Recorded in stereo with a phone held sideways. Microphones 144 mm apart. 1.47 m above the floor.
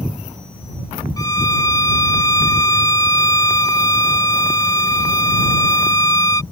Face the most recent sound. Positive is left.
turn(degrees=25)  # may be behind; listen again after turning